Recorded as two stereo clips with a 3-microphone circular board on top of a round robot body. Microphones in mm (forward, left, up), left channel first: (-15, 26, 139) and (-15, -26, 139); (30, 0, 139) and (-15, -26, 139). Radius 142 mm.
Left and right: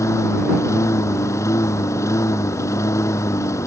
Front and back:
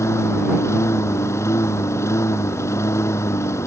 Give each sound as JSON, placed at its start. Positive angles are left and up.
{"t": 0.0, "sound": "a lawn mower", "azimuth_deg": 65}